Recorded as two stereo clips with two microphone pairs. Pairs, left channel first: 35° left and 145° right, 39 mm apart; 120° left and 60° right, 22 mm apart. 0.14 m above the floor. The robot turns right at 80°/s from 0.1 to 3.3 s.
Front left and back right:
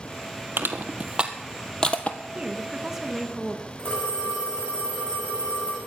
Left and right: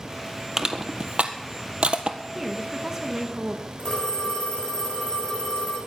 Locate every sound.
0.6 s crushing: 135° right, 1.3 m; by 2.2 s 5° right, 1.3 m
2.4 s a woman speaking: 125° right, 1.3 m; by 3.7 s 50° right, 1.3 m
3.8 s a phone ringing: 85° left, 7 m